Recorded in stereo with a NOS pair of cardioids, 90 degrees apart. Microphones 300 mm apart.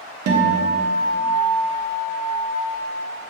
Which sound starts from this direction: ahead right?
A guitar, at 0.3 s.